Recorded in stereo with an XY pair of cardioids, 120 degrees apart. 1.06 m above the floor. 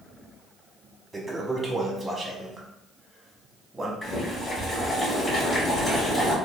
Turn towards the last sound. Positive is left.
turn(degrees=40)